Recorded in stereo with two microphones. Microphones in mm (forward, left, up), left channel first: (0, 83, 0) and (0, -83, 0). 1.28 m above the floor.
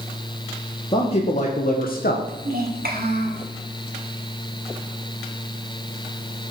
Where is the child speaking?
65° right (ahead or behind), 1.9 m.